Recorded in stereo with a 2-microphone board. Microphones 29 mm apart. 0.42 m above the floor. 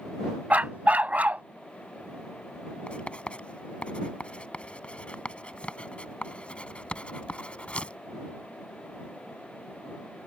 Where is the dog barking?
65° right (ahead or behind).